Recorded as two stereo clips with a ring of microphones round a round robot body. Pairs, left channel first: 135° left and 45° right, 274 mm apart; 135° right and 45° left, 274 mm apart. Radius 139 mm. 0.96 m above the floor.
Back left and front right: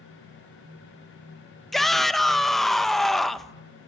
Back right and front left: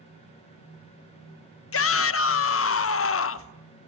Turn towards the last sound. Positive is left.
turn(degrees=-135)